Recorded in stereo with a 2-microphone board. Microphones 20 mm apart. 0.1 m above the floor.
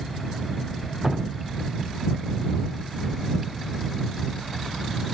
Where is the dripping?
20° right (ahead or behind).